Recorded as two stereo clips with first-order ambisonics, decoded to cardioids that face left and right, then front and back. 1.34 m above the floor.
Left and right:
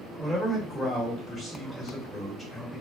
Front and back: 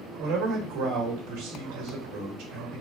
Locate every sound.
0.2 s a man speaking: 175° left, 1.3 m